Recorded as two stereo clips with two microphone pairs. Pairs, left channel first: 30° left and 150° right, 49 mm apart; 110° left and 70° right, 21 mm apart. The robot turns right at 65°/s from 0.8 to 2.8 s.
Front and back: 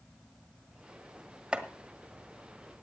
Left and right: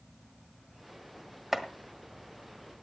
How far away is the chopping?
About 1.3 m.